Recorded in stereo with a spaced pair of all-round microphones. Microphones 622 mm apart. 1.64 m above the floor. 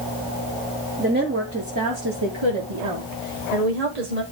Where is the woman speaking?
15° right (ahead or behind), 1.5 m; by 4.2 s 85° right, 1.8 m.